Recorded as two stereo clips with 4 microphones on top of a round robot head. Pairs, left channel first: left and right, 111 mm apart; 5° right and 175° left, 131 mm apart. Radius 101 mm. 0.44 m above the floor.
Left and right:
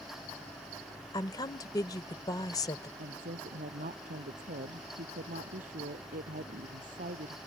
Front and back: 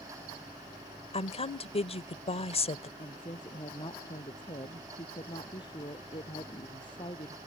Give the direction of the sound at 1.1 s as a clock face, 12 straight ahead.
11 o'clock.